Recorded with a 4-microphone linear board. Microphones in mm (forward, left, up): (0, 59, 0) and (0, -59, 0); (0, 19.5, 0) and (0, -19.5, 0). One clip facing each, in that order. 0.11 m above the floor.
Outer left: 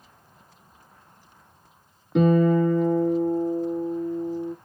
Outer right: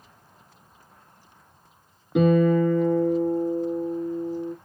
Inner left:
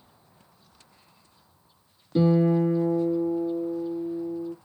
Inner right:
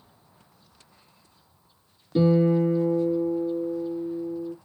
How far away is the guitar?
About 1.8 m.